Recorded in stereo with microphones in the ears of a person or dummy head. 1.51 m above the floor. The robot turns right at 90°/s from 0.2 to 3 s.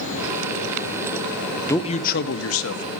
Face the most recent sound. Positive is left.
turn(degrees=130)